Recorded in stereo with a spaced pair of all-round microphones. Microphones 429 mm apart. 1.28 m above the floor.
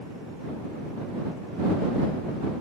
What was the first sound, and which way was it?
Only background noise.